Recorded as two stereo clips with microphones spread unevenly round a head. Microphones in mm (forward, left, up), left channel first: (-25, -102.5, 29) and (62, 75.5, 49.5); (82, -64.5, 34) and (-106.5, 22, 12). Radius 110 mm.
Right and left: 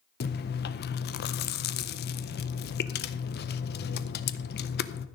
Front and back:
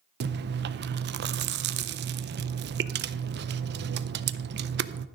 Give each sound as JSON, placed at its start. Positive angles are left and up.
{"t": 0.2, "sound": "chewing", "azimuth_deg": -160, "distance_m": 0.6}